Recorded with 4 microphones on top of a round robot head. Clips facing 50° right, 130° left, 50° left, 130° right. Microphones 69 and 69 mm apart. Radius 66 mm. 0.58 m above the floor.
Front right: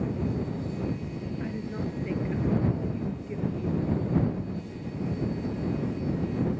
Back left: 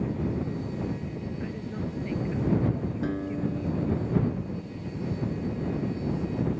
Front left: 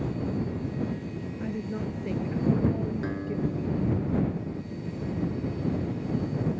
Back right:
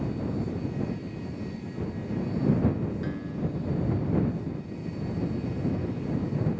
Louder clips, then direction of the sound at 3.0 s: Back left 3 dB, front left 2 dB; 115° left.